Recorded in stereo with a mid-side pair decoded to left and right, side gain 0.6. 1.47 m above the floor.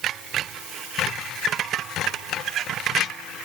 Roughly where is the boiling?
I don't hear boiling.